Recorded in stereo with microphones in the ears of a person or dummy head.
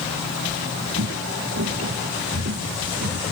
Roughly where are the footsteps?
Right.